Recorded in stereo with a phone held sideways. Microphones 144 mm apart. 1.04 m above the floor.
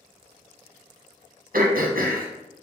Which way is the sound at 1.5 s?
70° right (ahead or behind).